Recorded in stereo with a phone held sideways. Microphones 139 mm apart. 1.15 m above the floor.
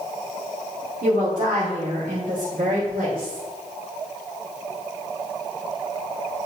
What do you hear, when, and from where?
1.0 s a woman speaking: 80° right, 3 m